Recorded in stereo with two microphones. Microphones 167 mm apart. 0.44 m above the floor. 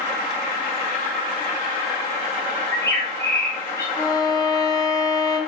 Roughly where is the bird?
Centre.